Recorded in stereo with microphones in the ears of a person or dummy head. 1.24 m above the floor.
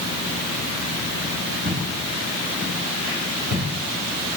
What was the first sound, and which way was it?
Footsteps, 45° right (ahead or behind).